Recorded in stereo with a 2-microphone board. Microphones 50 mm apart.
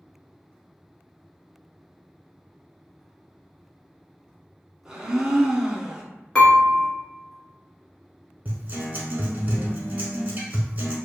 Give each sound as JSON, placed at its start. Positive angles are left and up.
{"t": 4.8, "sound": "a blender", "side_deg": -15, "distance_m": 0.7}
{"t": 6.3, "sound": "dishes clattering", "side_deg": 20, "distance_m": 1.4}
{"t": 8.4, "sound": "a guitar", "side_deg": -35, "distance_m": 0.8}